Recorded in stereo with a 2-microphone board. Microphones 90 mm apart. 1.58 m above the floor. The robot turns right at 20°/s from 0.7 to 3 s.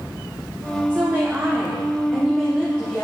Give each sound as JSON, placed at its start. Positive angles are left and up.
{"t": 0.9, "sound": "a woman speaking", "azimuth_deg": -25, "distance_m": 1.3}